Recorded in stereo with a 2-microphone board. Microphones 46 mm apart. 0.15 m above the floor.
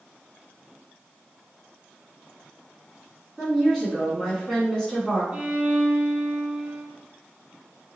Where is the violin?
25° right (ahead or behind), 1.1 m.